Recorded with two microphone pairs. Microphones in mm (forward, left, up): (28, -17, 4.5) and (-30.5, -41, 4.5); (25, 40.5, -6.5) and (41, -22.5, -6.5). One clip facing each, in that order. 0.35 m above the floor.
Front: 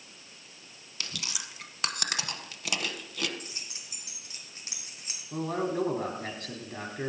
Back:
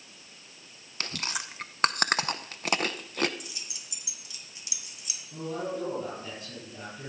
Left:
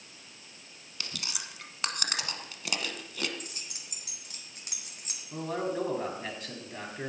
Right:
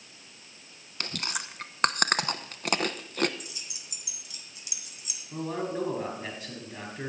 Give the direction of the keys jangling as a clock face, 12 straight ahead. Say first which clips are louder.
Even, even; 10 o'clock.